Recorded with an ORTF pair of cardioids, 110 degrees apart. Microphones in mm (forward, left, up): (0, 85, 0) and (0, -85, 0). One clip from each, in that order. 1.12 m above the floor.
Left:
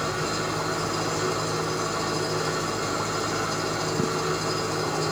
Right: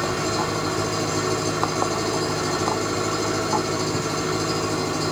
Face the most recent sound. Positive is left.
turn(degrees=-55)